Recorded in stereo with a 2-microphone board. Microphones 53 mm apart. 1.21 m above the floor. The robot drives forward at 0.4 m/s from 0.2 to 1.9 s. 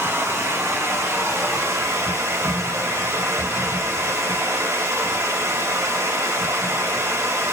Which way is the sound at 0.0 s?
60° right (ahead or behind).